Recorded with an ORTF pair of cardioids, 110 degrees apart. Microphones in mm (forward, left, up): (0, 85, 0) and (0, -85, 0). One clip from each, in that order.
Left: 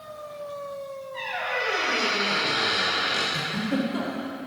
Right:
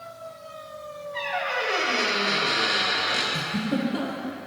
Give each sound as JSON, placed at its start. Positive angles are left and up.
{"t": 1.1, "sound": "a squeak", "azimuth_deg": -10, "distance_m": 1.6}
{"t": 3.3, "sound": "a giggle", "azimuth_deg": 0, "distance_m": 0.9}